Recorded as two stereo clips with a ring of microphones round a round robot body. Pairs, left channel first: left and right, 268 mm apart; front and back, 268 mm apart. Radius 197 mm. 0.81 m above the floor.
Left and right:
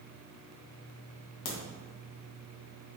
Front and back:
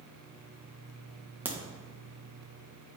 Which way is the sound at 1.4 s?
95° left.